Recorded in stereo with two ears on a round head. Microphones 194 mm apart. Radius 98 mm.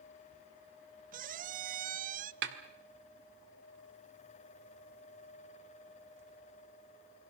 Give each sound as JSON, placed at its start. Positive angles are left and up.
{"t": 1.1, "sound": "a squeak", "side_deg": -40, "distance_m": 0.6}
{"t": 2.4, "sound": "a snare drum", "side_deg": -55, "distance_m": 2.0}